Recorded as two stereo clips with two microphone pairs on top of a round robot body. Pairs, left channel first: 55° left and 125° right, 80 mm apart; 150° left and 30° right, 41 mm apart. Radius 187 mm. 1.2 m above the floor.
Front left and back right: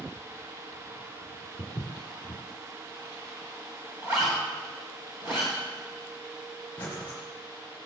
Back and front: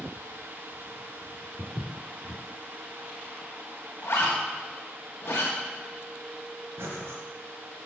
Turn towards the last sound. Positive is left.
turn(degrees=-10)